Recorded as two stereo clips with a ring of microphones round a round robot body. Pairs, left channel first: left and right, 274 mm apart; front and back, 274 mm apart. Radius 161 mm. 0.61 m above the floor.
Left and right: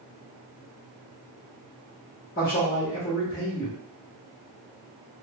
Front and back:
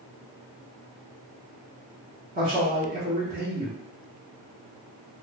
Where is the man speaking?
140° left, 1.2 m.